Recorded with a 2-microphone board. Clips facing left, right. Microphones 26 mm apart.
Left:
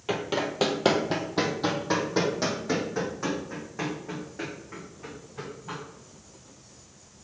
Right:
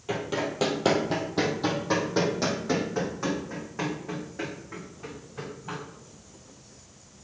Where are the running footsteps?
30° left (ahead or behind), 1.2 m; by 5.8 s 10° right (ahead or behind), 3.5 m.